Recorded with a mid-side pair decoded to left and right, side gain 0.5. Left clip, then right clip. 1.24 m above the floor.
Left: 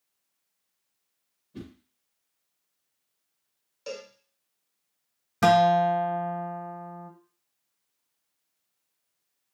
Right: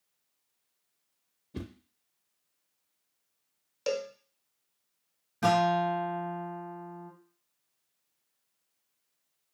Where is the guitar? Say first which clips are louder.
Left 6 dB; 65° left, 0.8 m.